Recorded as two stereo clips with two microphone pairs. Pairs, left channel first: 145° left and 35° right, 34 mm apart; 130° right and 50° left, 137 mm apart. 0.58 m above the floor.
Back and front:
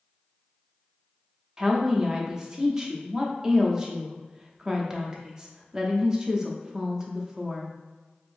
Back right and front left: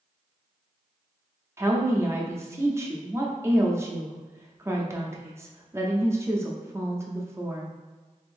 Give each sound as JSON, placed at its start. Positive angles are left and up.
{"t": 1.6, "sound": "a woman speaking", "azimuth_deg": 15, "distance_m": 0.6}